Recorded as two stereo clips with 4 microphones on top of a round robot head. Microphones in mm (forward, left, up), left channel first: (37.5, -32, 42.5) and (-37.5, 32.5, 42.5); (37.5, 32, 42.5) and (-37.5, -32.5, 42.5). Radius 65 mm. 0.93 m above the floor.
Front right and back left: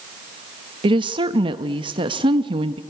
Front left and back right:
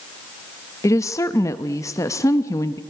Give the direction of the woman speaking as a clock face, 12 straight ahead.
9 o'clock.